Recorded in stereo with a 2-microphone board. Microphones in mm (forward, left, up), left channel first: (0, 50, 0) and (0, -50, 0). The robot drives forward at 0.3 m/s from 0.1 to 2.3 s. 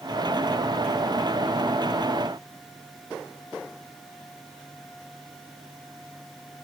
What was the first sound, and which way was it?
Only background noise.